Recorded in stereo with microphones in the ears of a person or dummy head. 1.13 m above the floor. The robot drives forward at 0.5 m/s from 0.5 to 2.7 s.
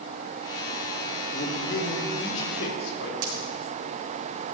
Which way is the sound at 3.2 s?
60° right (ahead or behind).